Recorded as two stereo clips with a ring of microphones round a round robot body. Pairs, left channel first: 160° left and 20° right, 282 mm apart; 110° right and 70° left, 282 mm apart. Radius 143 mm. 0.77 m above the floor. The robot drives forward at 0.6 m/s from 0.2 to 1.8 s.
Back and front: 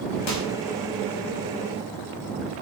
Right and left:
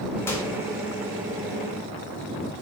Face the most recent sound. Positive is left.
turn(degrees=170)